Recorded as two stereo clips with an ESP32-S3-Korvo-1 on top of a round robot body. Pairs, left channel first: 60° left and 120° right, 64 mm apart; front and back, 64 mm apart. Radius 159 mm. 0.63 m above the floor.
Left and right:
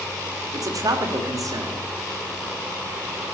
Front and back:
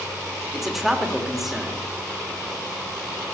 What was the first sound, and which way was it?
A man speaking, 95° right.